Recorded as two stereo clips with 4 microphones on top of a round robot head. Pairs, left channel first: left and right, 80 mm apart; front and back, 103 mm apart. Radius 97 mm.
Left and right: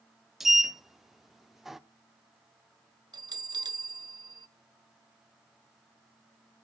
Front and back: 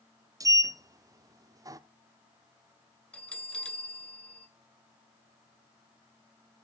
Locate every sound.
0.4 s a sliding door: 175° right, 0.9 m
3.1 s a bell: 80° right, 1.3 m